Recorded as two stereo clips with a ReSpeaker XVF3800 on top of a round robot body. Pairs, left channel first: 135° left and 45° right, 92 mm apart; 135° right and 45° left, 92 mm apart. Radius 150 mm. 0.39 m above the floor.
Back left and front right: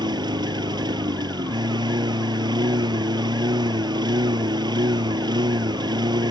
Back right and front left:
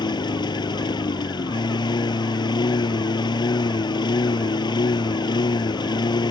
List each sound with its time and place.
0.0 s a lawn mower: 90° right